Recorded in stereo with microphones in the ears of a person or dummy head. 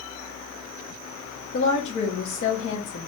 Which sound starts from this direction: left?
A woman speaking, at 1.5 s.